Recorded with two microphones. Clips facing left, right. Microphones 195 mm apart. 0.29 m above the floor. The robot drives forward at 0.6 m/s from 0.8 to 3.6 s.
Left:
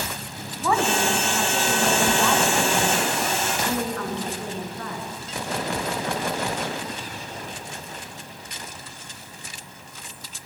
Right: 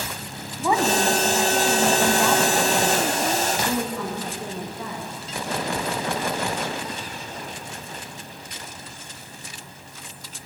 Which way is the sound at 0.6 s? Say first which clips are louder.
Right 2 dB; 15° right (ahead or behind).